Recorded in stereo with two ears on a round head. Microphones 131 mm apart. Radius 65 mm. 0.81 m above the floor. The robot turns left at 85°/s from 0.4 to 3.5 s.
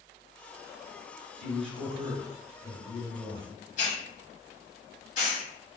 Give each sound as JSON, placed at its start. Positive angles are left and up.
{"t": 1.4, "sound": "a man speaking", "azimuth_deg": -95, "distance_m": 1.8}
{"t": 3.8, "sound": "a hiss", "side_deg": 55, "distance_m": 1.0}